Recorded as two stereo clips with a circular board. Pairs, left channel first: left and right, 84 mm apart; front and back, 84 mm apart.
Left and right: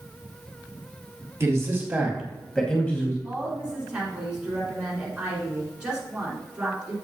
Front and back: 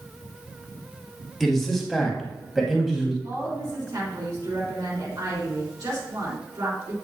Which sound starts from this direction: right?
A man speaking, at 1.4 s.